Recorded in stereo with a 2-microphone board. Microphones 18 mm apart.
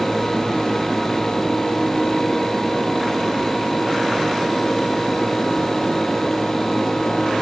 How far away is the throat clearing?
I don't hear throat clearing.